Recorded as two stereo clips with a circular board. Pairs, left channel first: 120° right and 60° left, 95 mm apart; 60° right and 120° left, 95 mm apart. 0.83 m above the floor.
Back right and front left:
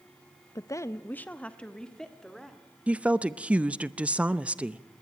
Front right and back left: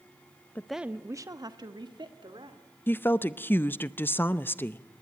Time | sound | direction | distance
0.6 | a woman speaking | 120° right | 0.5 m
2.9 | a woman speaking | 10° right | 0.6 m